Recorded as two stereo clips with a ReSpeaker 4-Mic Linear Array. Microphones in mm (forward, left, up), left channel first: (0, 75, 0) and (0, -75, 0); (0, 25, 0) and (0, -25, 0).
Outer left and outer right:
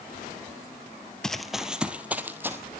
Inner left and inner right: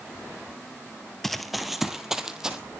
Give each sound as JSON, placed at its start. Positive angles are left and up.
{"t": 1.2, "sound": "running footsteps", "side_deg": 5, "distance_m": 1.2}